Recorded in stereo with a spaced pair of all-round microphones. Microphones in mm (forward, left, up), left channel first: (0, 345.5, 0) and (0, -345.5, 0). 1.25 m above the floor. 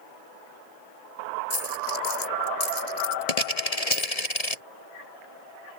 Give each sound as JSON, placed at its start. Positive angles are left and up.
{"t": 1.5, "sound": "a dropped coin", "side_deg": 60}